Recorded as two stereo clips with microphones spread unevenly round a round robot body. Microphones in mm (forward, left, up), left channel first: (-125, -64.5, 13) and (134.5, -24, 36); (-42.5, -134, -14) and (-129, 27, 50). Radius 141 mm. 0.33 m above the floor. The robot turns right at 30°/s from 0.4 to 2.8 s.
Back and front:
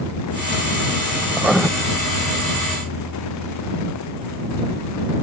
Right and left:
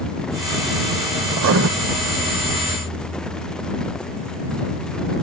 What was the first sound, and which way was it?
Writing, 95° left.